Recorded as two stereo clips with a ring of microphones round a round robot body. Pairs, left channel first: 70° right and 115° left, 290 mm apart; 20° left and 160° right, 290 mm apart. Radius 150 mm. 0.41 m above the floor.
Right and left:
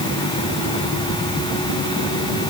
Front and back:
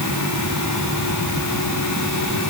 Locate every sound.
Only background noise.